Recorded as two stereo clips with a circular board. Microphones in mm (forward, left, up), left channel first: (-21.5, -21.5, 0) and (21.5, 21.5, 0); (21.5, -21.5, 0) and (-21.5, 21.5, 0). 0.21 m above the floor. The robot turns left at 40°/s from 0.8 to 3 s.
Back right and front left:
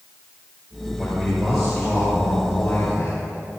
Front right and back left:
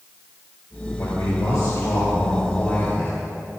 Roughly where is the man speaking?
Ahead.